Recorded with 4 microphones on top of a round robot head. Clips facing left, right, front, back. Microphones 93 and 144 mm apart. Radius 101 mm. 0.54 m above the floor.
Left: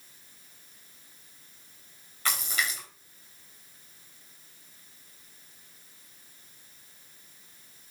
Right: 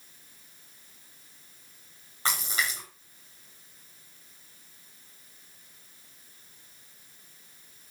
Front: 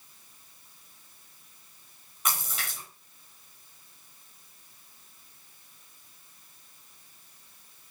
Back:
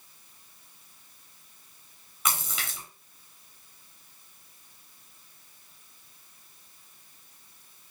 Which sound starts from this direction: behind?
A splash, at 2.2 s.